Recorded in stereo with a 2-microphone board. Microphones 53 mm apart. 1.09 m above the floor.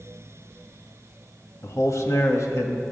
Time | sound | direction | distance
1.6 | a man speaking | 70° left (ahead or behind) | 1.2 m